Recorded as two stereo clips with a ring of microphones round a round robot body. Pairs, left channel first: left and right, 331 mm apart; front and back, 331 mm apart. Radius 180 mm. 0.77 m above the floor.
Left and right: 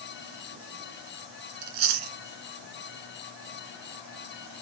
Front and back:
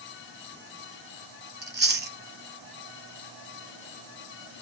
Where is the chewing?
120° right, 2.0 m.